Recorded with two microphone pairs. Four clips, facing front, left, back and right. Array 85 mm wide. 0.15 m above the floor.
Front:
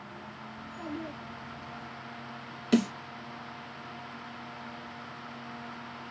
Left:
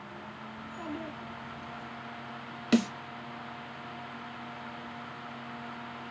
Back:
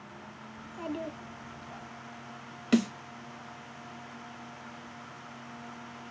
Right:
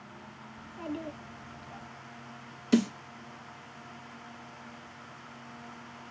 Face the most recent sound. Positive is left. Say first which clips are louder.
# right 1 dB, even
turn(degrees=110)